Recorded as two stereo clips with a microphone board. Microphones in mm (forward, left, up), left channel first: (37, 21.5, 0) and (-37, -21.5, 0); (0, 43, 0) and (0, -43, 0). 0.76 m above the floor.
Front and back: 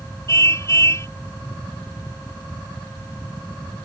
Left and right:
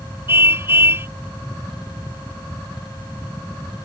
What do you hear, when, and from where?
0.3 s a car horn: 25° right